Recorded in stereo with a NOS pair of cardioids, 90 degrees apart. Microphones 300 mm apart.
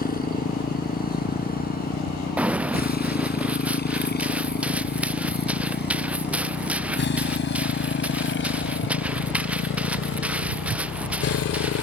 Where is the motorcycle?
30° left; by 11.8 s 55° left.